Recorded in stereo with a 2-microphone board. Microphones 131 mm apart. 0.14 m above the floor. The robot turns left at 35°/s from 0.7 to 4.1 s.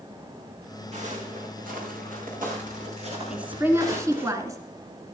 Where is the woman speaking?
5° right (ahead or behind), 1.7 m; by 4.6 s 25° right (ahead or behind), 1.7 m.